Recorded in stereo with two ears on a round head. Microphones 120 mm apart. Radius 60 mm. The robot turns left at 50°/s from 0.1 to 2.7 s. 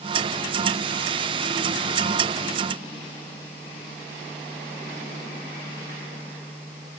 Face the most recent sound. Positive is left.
No sound to turn to.